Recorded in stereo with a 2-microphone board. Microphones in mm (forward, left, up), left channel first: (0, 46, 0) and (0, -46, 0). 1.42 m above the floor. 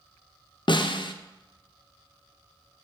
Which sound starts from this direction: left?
A snare drum, at 0.7 s.